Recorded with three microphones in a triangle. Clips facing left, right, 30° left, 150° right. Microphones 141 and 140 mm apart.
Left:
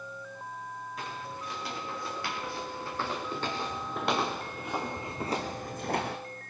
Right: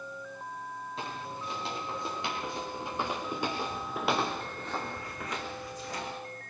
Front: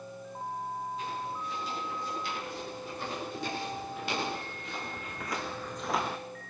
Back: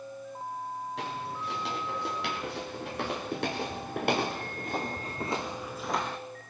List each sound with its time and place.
1.0 s footsteps: 155° right, 5.5 m; by 6.2 s 110° left, 1.5 m